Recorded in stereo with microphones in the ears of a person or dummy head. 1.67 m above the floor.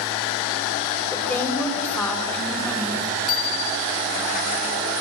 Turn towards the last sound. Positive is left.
turn(degrees=50)  # may be behind; listen again after turning